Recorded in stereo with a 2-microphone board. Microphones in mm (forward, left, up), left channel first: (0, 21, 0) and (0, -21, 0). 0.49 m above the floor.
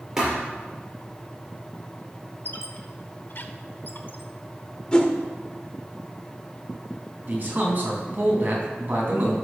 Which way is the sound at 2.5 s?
50° left (ahead or behind).